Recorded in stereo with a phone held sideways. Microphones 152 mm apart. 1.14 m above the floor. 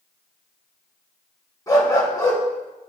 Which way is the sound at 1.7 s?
25° left (ahead or behind).